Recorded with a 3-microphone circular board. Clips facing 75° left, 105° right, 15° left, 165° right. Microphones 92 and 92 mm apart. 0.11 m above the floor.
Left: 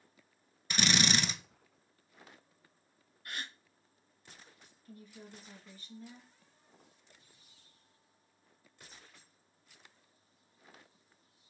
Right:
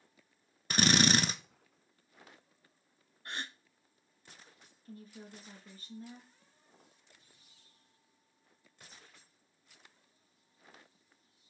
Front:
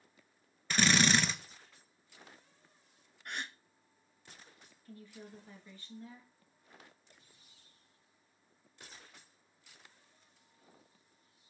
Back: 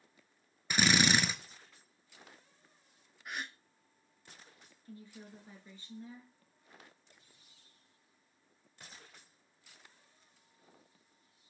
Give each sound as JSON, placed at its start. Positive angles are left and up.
{"t": 0.7, "sound": "a drill", "azimuth_deg": -95, "distance_m": 0.6}
{"t": 3.2, "sound": "a gasp", "azimuth_deg": -80, "distance_m": 0.6}
{"t": 4.8, "sound": "a woman speaking", "azimuth_deg": -120, "distance_m": 1.4}